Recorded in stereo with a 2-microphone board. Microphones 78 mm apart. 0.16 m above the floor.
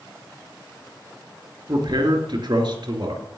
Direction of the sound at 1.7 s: 60° right (ahead or behind).